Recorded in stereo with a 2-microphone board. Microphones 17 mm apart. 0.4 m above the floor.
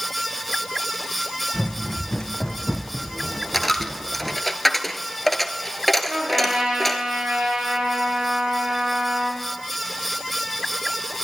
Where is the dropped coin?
10° left (ahead or behind), 0.9 m.